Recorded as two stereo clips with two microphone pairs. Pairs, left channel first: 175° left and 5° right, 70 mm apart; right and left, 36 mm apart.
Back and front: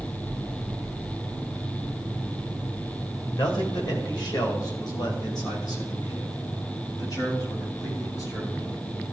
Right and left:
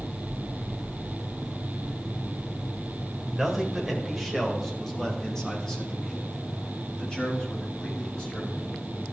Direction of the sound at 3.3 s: 175° left.